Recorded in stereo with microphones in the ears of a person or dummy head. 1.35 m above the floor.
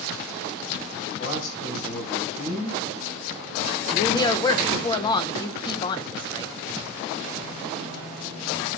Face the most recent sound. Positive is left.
turn(degrees=25)  # may be behind; listen again after turning